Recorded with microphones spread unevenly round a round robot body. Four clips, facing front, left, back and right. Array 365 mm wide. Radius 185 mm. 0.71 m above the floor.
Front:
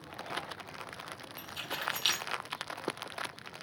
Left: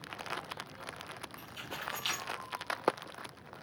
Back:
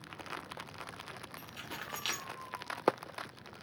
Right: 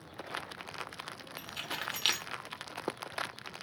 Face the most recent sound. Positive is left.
turn(degrees=-75)